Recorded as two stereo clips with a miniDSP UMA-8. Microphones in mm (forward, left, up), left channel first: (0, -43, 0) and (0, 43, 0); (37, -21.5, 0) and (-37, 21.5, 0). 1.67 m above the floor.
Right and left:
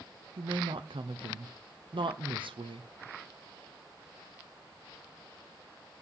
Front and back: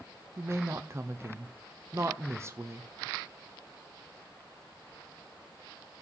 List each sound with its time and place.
0.4 s a woman speaking: 90° left, 0.8 m